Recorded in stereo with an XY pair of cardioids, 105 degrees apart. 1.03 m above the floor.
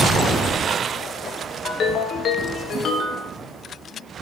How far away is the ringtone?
About 0.5 m.